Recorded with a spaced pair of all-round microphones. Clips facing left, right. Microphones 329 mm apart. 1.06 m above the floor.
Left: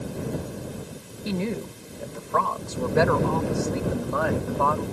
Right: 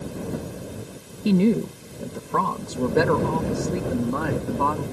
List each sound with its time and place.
1.2 s a woman speaking: 40° right (ahead or behind)